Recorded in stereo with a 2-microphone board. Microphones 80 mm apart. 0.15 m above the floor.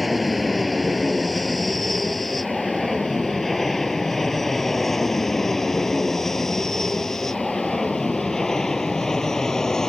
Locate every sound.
0.0 s an aircraft: centre (ahead or behind); by 9.9 s 5° left (ahead or behind)